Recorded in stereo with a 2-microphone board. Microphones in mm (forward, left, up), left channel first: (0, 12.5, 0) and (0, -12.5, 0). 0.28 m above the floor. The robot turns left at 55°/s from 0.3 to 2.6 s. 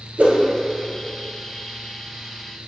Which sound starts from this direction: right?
A whoosh, at 0.2 s.